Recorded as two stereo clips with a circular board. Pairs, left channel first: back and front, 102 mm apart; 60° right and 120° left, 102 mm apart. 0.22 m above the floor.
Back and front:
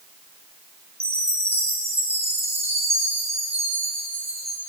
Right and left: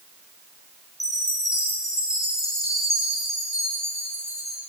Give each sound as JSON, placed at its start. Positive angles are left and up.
{"t": 1.0, "sound": "a chime", "azimuth_deg": -5, "distance_m": 10.0}